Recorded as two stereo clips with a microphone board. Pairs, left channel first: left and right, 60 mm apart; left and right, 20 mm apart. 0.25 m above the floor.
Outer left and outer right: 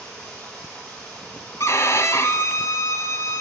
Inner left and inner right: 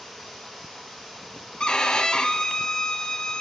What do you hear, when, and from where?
0.0 s running water: 20° left (ahead or behind), 5.5 m
1.6 s a violin: 55° left (ahead or behind), 0.6 m